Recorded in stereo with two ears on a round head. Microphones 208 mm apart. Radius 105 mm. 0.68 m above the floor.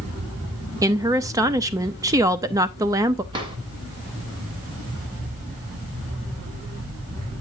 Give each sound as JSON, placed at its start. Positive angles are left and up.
{"t": 0.8, "sound": "a woman speaking", "side_deg": -15, "distance_m": 0.7}
{"t": 3.3, "sound": "a drawer", "side_deg": -20, "distance_m": 2.0}